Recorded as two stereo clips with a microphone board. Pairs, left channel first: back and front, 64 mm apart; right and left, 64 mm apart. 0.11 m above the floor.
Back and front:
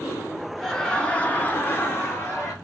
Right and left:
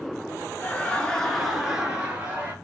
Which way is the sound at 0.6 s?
100° right.